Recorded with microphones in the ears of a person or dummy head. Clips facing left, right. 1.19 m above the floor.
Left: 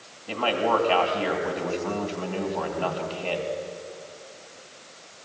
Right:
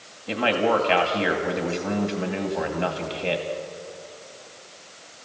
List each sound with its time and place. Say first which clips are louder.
0.3 s a man speaking: right 2 dB; 25° right (ahead or behind), 2.5 m